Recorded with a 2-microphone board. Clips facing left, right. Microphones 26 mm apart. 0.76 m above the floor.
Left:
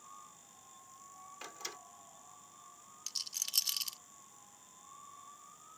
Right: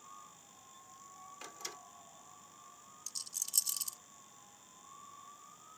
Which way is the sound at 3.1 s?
45° left (ahead or behind).